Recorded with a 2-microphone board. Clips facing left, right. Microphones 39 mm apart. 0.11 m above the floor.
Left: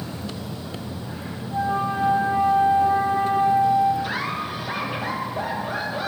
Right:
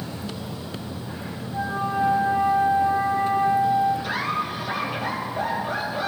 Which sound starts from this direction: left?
A flute, at 1.5 s.